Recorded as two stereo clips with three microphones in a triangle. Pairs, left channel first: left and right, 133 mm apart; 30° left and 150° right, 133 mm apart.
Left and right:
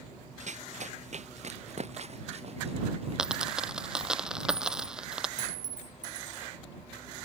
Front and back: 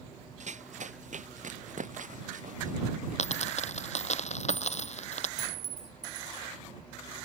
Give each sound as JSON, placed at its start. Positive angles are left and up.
{"t": 0.4, "sound": "running footsteps", "azimuth_deg": -120}
{"t": 3.2, "sound": "a dropped coin", "azimuth_deg": -5}
{"t": 5.4, "sound": "a clink", "azimuth_deg": 70}